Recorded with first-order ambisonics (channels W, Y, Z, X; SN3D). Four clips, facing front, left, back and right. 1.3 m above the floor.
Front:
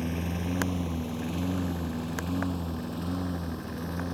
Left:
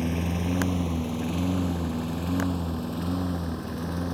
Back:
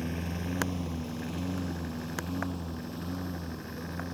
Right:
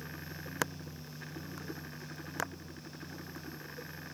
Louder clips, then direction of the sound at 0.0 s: Left 16 dB, front 3 dB; 80° left.